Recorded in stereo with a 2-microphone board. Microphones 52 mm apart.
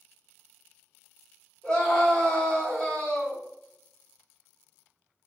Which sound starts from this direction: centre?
A scream, at 1.6 s.